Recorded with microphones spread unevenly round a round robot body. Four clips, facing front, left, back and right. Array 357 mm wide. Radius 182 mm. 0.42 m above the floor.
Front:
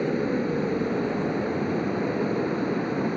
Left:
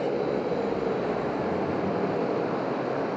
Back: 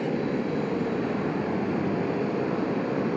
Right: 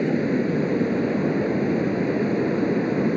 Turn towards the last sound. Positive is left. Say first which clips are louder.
# right 4 dB, front 2 dB
turn(degrees=-85)